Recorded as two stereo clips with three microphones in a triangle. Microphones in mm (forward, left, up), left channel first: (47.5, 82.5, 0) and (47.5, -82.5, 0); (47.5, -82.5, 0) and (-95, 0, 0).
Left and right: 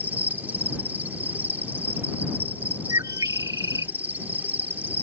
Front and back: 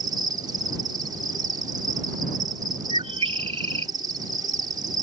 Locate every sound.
0.0 s an insect: 160° right
2.9 s a bird: 155° right